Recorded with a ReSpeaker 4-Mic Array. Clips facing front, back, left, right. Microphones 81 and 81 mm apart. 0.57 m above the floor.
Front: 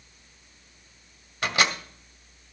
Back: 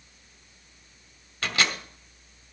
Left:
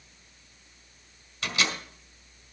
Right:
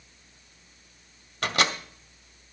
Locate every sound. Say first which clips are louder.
1.4 s a microwave: front 2 dB, right 4 dB; 70° right, 1.1 m